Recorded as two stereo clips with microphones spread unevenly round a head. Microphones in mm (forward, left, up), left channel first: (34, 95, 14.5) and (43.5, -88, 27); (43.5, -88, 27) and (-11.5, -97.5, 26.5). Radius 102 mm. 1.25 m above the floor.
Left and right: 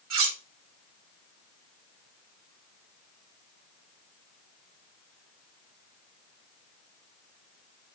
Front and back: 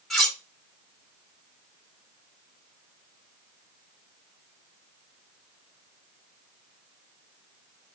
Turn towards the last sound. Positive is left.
turn(degrees=-75)